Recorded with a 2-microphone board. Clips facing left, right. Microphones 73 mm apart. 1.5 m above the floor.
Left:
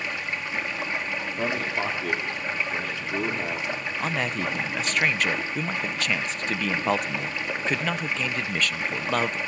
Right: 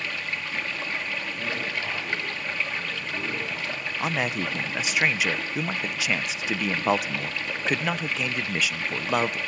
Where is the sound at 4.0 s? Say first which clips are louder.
Right 1 dB; 5° right (ahead or behind), 0.7 m.